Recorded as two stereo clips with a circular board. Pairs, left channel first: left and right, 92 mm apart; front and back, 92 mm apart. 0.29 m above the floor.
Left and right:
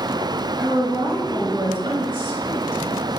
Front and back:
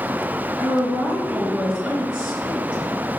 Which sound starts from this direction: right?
A woman speaking, at 0.6 s.